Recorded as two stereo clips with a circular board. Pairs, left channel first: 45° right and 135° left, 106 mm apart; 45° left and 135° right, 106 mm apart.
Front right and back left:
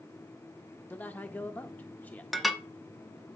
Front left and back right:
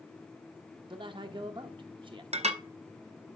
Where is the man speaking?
115° right, 0.6 m.